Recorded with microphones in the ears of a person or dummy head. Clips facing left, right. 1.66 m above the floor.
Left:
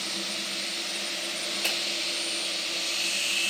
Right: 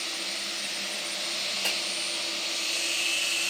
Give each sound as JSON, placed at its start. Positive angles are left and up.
{"t": 1.6, "sound": "a finger snap", "side_deg": 0, "distance_m": 1.3}